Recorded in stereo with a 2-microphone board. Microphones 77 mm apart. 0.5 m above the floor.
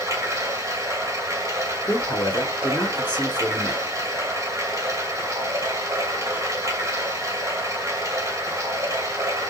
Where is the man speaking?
25° left (ahead or behind), 1.3 m.